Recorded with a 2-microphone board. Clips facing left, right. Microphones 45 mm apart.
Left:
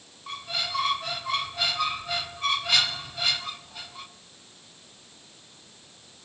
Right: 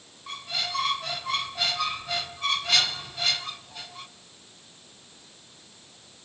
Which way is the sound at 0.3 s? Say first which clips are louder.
Even; 5° left (ahead or behind).